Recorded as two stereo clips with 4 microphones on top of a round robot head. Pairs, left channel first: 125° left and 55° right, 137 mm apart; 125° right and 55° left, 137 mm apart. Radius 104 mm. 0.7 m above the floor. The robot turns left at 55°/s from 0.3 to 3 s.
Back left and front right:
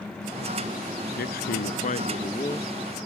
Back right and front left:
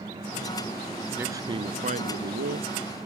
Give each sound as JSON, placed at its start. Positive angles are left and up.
{"t": 1.2, "sound": "a man speaking", "azimuth_deg": 130}